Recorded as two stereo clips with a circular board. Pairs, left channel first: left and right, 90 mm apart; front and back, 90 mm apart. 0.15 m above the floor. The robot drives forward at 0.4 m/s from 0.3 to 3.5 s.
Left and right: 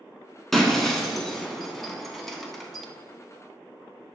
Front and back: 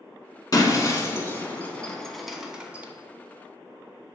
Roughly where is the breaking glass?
Ahead.